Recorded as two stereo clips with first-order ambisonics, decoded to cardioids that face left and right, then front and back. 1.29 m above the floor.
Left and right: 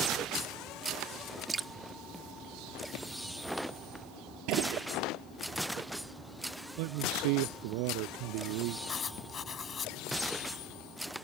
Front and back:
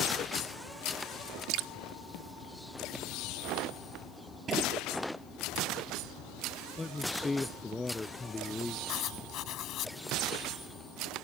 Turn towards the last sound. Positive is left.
turn(degrees=30)